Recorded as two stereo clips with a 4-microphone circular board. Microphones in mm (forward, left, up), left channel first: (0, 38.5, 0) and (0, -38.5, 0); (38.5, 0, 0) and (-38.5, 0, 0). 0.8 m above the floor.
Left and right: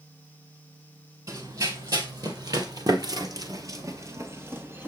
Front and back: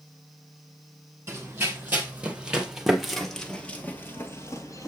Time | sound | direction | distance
1.3 | running footsteps | 120° right | 1.9 m